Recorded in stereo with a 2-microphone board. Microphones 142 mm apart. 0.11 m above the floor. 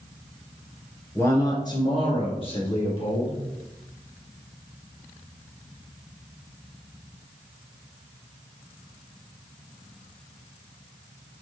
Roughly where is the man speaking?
Centre.